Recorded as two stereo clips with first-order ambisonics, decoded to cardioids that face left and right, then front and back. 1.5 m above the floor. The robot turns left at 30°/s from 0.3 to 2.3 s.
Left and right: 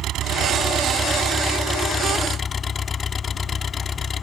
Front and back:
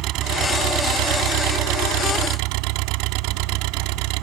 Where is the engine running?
140° right; by 4.2 s 160° left.